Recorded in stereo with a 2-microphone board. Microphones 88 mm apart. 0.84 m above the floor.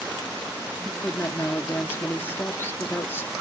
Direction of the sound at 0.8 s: 25° left (ahead or behind).